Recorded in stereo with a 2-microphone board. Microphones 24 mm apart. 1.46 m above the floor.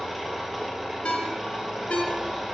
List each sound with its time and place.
0.0 s an engine running: 5° right (ahead or behind), 1.9 m
1.1 s a ringtone: 55° left (ahead or behind), 1.3 m